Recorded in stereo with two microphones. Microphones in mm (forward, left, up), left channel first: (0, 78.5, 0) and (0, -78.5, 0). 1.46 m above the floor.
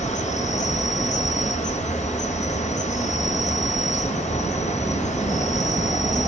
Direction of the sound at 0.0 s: 50° left (ahead or behind).